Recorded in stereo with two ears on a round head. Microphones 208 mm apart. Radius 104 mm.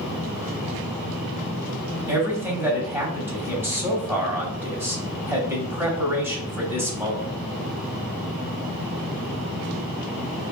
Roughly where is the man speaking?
Centre.